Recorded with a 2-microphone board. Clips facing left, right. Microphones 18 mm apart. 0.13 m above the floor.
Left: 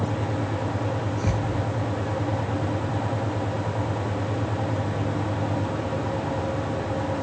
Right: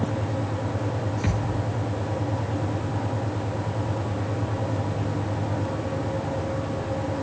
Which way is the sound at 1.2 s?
40° right (ahead or behind).